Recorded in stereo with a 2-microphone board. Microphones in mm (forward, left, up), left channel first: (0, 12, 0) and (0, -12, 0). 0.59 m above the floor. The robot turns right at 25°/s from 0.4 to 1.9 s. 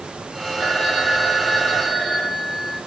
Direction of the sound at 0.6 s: 35° right.